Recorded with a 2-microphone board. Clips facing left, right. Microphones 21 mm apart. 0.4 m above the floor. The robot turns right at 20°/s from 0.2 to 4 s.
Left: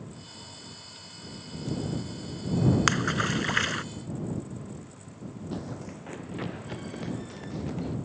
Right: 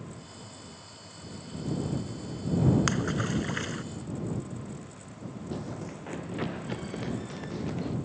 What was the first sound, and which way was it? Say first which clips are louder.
A splash: left 3 dB; 30° left (ahead or behind).